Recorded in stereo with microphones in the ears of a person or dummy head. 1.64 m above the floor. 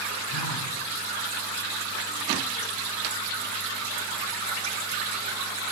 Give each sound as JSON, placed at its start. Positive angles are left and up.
{"t": 0.3, "sound": "a phone buzzing", "side_deg": 45, "distance_m": 1.0}